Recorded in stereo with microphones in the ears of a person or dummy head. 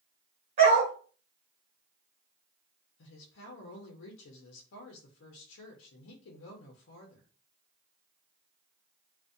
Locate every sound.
0.6 s a dog barking: 30° right (ahead or behind), 0.7 m
3.0 s a woman speaking: 70° left (ahead or behind), 0.5 m